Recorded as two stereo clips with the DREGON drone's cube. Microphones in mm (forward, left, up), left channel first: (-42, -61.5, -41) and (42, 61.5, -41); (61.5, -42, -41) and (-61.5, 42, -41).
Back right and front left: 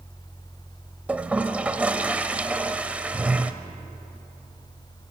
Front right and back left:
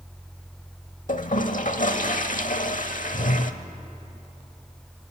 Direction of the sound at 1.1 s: 25° right.